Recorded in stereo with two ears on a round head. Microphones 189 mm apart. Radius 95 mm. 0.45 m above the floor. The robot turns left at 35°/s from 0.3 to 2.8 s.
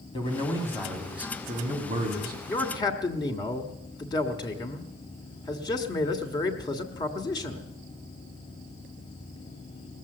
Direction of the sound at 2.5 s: 10° left (ahead or behind).